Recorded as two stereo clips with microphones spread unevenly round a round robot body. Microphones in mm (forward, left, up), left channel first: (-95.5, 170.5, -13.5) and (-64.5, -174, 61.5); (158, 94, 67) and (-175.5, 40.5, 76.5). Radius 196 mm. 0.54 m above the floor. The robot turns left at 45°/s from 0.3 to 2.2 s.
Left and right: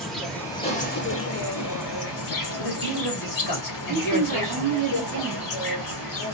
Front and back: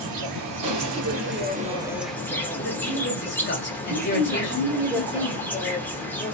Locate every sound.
0.0 s an insect: straight behind, 1.2 m; by 6.4 s 95° left, 1.2 m
2.6 s a man speaking: 65° left, 1.9 m
3.9 s a woman speaking: 115° right, 1.2 m